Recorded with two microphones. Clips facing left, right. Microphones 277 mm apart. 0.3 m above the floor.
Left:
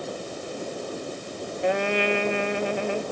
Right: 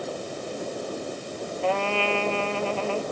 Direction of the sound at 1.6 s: 15° left (ahead or behind).